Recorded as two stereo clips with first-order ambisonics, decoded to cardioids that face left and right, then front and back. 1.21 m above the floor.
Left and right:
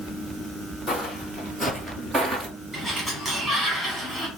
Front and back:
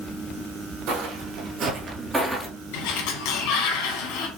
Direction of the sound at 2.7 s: 5° right.